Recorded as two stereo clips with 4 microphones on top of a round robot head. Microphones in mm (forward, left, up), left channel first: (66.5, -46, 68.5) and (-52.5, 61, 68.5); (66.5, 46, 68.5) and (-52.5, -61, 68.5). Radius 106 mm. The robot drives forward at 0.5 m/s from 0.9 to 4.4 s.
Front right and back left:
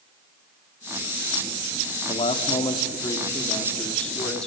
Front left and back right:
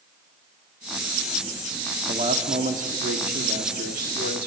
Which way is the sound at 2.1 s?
95° right.